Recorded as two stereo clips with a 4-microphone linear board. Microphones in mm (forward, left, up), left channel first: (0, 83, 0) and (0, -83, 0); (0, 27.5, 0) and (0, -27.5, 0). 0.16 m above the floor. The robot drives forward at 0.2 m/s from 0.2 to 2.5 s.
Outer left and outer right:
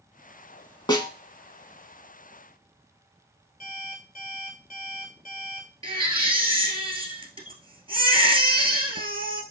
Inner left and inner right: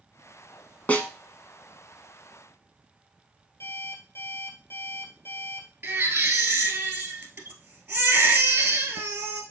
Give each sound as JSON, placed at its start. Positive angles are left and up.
{"t": 0.9, "sound": "a snare drum", "side_deg": 25, "distance_m": 0.6}
{"t": 3.6, "sound": "an alarm clock", "side_deg": 55, "distance_m": 1.5}
{"t": 5.8, "sound": "a baby crying", "side_deg": -35, "distance_m": 1.3}